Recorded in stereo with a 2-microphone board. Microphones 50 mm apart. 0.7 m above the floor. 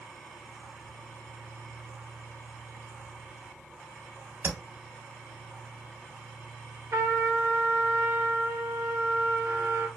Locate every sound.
4.4 s tapping: 65° right (ahead or behind), 2.5 m
6.9 s a trumpet: 70° right (ahead or behind), 0.7 m